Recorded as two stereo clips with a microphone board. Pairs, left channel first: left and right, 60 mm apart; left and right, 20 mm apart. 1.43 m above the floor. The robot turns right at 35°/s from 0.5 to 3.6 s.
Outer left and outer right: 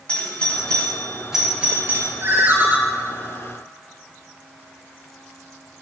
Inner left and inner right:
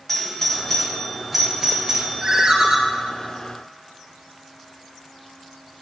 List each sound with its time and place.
0.1 s a doorbell: 15° left (ahead or behind), 1.1 m; by 2.1 s 35° right (ahead or behind), 1.1 m
2.2 s a ringtone: 45° right (ahead or behind), 0.9 m; by 2.8 s 35° right (ahead or behind), 0.9 m